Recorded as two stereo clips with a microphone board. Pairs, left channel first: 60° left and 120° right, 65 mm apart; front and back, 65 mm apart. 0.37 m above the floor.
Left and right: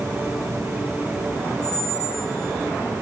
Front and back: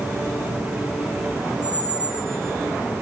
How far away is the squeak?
About 5.5 m.